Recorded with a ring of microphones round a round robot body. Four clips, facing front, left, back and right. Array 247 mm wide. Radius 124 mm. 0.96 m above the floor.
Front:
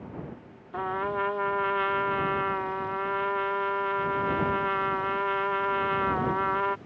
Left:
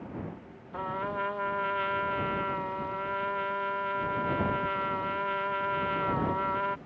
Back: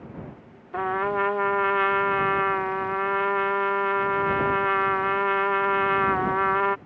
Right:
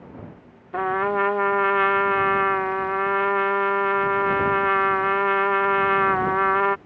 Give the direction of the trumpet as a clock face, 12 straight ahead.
4 o'clock.